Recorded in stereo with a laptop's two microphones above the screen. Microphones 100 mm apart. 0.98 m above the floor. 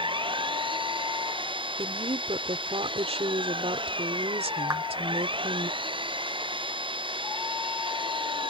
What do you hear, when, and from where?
0.0 s an engine running: 55° right (ahead or behind)
1.8 s a woman speaking: 75° right (ahead or behind)
4.7 s a clap: 35° right (ahead or behind)